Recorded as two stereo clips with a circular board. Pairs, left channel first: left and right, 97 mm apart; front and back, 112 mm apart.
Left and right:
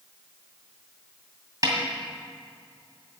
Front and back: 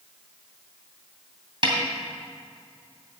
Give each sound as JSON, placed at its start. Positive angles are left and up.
{"t": 1.6, "sound": "a snare drum", "azimuth_deg": -140, "distance_m": 2.0}